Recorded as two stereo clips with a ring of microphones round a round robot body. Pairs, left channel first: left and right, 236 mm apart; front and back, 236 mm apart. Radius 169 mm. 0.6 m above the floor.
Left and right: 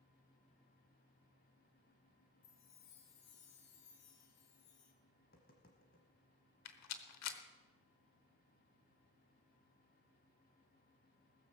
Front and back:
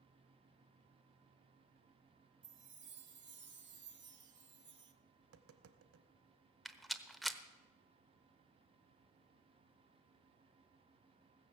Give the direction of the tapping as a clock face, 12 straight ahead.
7 o'clock.